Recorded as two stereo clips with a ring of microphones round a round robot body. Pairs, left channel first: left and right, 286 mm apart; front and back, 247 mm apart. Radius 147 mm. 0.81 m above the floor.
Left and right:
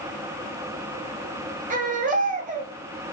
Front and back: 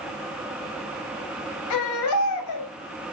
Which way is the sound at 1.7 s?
25° right.